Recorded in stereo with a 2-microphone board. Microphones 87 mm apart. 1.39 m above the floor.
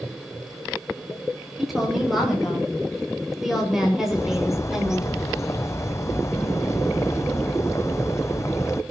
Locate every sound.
1.6 s a woman speaking: centre (ahead or behind), 8 m; by 5.1 s 5° right (ahead or behind), 5.5 m
4.1 s a bird: 35° left (ahead or behind), 0.9 m